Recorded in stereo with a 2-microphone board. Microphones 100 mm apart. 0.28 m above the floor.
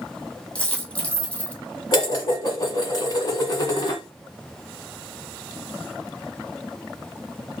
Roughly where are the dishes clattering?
Left.